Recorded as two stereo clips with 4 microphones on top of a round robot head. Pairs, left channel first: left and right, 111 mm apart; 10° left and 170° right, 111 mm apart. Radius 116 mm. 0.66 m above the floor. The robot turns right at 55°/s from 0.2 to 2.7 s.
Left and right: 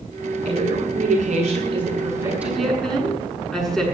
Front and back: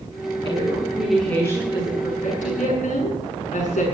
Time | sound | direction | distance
0.5 | a woman speaking | 120° right | 8 m